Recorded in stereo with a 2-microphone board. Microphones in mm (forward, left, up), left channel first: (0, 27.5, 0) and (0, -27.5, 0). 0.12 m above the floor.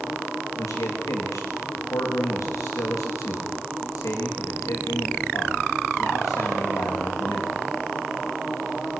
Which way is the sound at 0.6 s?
80° left.